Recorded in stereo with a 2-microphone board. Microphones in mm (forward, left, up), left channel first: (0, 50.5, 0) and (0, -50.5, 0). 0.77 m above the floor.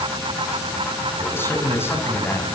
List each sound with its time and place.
1.2 s a man speaking: 20° left (ahead or behind), 7 m